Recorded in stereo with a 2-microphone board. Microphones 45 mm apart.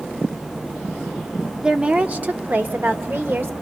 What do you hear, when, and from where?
1.6 s a woman speaking: 20° right (ahead or behind), 0.8 m; by 3.5 s 60° right (ahead or behind), 1.4 m